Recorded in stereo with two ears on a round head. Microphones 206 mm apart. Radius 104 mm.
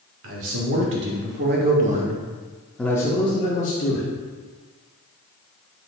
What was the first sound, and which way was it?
A man speaking, 65° right (ahead or behind).